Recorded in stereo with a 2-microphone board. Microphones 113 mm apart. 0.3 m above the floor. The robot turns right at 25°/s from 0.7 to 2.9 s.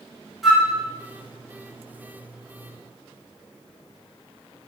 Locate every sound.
0.4 s a flute: centre (ahead or behind), 2.0 m